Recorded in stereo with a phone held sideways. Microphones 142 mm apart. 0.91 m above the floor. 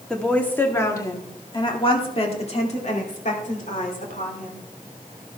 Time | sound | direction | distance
0.1 | a woman speaking | 5° left (ahead or behind) | 2.0 m